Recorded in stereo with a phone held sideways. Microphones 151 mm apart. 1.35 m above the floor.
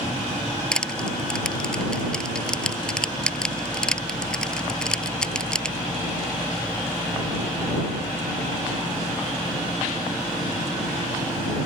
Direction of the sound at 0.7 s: 5° left (ahead or behind).